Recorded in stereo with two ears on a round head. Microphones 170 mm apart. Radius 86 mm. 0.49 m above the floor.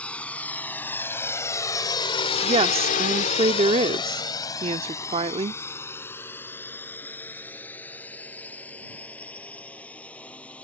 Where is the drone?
5° left (ahead or behind).